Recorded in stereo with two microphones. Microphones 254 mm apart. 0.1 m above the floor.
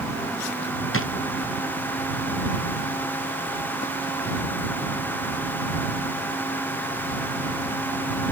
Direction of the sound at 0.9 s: 55° left (ahead or behind).